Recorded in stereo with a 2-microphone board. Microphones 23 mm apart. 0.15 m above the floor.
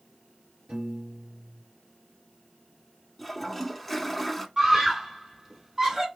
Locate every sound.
0.7 s a piano: 35° right (ahead or behind), 2 m
3.2 s a toilet flushing: 5° left (ahead or behind), 0.5 m
4.6 s a scream: 25° right (ahead or behind), 1.2 m